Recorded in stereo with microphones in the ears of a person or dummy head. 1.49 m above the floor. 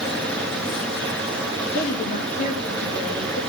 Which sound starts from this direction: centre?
Running water, at 0.0 s.